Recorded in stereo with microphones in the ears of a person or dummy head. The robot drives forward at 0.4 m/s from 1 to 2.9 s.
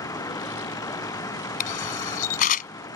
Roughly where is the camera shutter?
Left.